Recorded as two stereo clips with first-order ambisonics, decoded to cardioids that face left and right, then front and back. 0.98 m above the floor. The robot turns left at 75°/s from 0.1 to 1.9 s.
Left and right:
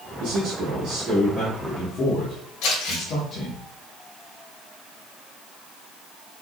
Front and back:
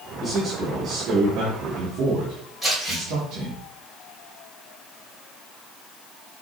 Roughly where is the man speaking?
Right.